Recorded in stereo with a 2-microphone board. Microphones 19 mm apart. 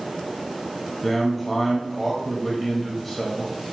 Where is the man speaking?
10° left (ahead or behind), 0.6 m.